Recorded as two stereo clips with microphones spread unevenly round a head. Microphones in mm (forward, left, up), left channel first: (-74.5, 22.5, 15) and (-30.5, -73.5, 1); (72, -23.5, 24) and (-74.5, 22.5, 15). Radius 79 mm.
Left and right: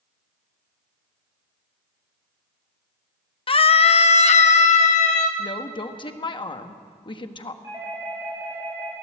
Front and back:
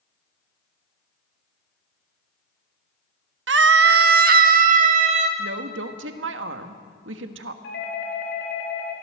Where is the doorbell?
5° left, 4.5 m.